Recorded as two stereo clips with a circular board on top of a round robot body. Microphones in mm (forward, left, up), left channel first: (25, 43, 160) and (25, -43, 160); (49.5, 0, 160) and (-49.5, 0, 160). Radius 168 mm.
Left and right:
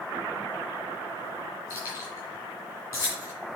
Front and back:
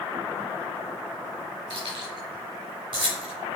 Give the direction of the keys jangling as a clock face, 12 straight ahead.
7 o'clock.